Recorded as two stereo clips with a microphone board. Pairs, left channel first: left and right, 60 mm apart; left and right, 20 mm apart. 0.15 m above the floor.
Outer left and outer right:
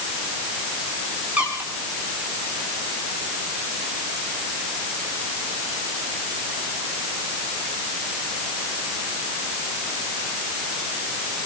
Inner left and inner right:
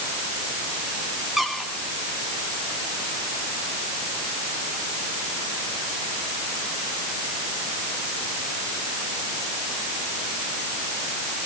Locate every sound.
1.4 s a squeak: 25° right (ahead or behind), 7.5 m